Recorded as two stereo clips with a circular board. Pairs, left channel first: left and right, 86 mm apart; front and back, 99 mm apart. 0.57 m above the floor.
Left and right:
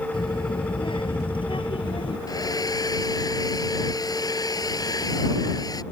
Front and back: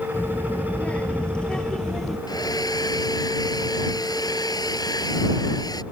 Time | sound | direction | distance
0.1 | a child speaking | 70° left | ?
2.3 | a hair dryer | 50° left | ?